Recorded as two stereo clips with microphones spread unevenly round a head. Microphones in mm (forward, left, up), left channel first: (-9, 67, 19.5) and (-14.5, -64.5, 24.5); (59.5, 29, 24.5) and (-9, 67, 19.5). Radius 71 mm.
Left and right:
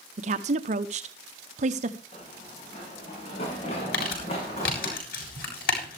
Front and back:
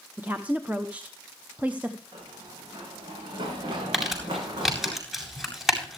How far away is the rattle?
No rattle in this recording.